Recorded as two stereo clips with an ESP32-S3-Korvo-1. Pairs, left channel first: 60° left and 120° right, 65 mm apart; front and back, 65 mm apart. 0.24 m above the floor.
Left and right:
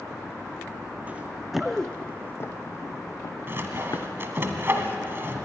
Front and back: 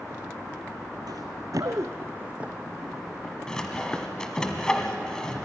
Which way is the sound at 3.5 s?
75° right.